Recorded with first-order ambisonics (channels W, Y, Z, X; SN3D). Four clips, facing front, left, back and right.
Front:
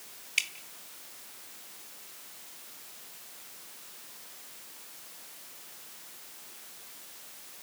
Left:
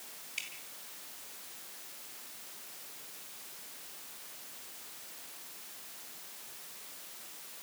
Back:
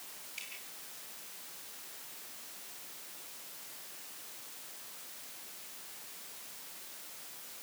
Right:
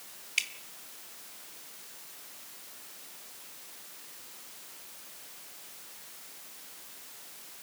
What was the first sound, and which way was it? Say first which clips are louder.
Dripping: right 10 dB, front 16 dB; 35° right.